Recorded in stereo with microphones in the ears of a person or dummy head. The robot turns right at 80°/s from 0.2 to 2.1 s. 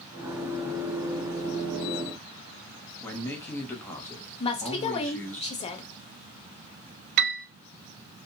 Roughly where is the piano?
Right.